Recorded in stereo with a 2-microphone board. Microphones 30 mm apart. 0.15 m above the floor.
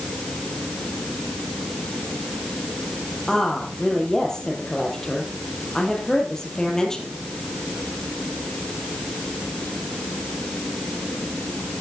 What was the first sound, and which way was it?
A woman speaking, 20° left (ahead or behind).